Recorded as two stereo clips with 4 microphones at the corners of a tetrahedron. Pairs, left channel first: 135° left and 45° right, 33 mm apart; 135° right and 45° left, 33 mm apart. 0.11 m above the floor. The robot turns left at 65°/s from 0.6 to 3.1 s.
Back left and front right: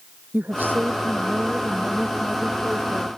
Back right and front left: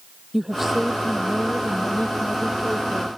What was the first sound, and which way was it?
A woman speaking, 35° right.